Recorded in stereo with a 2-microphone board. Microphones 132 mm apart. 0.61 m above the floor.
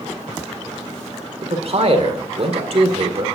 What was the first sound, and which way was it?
A man speaking, 50° right (ahead or behind).